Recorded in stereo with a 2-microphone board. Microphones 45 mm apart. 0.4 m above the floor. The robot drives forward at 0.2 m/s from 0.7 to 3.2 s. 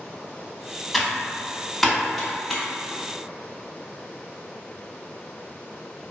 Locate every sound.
0.9 s typing on a keyboard: centre (ahead or behind), 0.5 m